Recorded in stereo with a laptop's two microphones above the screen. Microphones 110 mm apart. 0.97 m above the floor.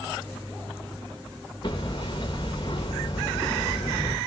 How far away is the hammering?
About 0.6 m.